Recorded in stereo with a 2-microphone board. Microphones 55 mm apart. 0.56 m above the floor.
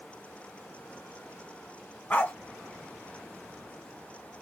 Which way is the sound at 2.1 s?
30° left (ahead or behind).